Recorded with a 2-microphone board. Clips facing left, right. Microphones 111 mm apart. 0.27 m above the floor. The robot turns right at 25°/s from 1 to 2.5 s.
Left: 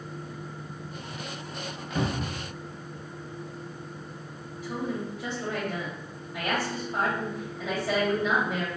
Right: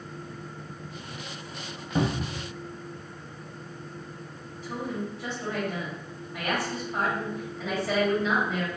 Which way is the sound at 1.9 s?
25° right (ahead or behind).